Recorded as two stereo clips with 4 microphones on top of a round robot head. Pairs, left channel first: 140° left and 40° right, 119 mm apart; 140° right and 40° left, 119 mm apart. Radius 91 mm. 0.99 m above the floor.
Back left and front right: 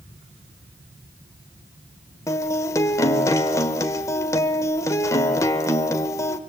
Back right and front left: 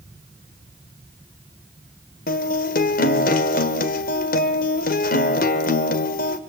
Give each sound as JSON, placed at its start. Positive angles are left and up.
{"t": 2.3, "sound": "a guitar", "azimuth_deg": -150, "distance_m": 1.3}